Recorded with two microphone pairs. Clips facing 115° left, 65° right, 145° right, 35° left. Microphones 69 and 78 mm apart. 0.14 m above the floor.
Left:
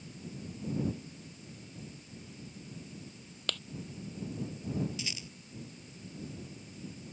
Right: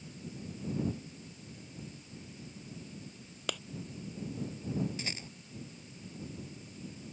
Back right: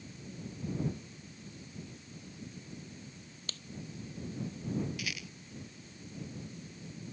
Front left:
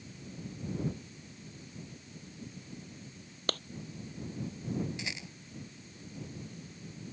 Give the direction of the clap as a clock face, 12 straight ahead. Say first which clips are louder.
Right 1 dB, front left 14 dB; 12 o'clock.